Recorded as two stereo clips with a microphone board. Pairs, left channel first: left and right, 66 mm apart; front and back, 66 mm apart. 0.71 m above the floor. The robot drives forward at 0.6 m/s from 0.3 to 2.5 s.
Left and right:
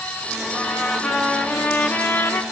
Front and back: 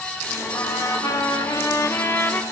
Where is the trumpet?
15° left, 1.5 m; by 2.4 s 55° left, 0.6 m.